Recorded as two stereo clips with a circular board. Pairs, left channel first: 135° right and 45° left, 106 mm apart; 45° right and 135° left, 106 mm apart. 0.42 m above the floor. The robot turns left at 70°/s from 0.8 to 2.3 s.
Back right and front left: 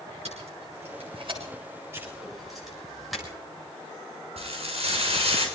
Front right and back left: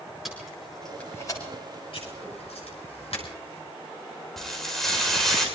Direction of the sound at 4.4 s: 40° left.